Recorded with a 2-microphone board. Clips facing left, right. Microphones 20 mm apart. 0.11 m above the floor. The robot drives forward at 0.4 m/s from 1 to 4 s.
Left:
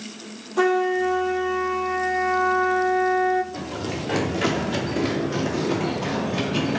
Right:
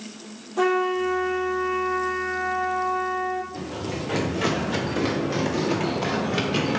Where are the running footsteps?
30° left (ahead or behind), 1.2 m; by 6.8 s 35° right (ahead or behind), 2 m.